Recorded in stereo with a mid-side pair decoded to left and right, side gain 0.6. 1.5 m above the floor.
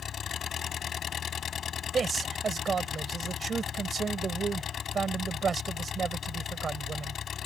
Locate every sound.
0.0 s an engine running: 40° left
1.9 s a man speaking: 30° right